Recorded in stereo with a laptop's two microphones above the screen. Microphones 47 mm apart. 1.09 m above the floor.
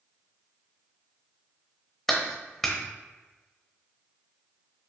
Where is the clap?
5° left (ahead or behind), 0.8 m.